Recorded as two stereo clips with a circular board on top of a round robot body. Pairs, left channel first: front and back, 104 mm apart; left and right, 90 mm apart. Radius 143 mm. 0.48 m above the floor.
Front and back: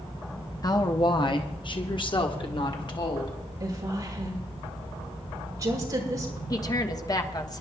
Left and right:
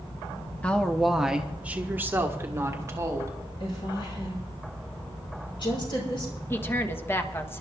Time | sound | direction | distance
0.6 | a woman speaking | 20° left | 1.0 m
3.6 | a woman speaking | 120° left | 5.5 m
6.5 | a woman speaking | 35° left | 1.4 m